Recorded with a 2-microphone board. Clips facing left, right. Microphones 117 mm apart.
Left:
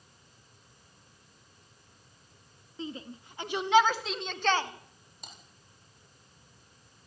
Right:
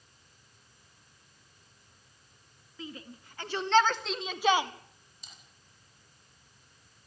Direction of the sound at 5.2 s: 60° left (ahead or behind).